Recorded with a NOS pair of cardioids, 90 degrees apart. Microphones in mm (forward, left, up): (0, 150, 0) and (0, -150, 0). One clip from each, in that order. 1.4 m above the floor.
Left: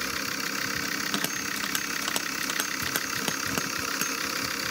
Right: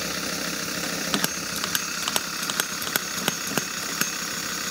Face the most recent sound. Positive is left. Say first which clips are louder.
# right 3 dB
turn(degrees=-30)